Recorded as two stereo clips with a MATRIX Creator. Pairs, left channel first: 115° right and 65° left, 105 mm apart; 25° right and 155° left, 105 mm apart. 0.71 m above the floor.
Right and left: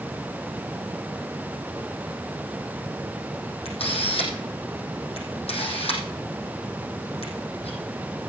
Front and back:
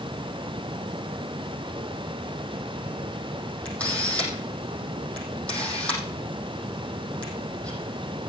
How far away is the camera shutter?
About 5 m.